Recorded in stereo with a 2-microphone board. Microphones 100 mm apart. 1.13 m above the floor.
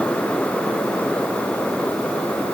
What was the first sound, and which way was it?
Only background noise.